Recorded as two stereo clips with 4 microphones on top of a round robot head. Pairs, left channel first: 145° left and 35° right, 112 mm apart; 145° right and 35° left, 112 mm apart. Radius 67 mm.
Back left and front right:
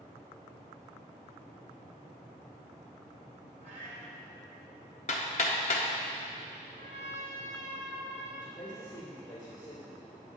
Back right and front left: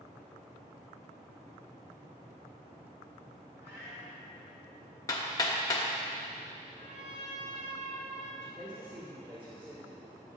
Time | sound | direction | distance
3.6 | a cat meowing | 20° right | 1.2 m
5.1 | hammering | 160° left | 0.6 m
6.7 | a trumpet | 10° left | 2.5 m
8.4 | a man speaking | 90° left | 1.6 m